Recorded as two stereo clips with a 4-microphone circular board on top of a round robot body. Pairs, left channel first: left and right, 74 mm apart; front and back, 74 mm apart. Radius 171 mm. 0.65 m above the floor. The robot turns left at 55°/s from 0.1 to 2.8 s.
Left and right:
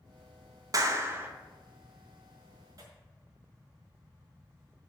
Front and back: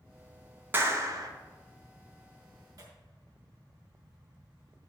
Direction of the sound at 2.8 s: 135° right.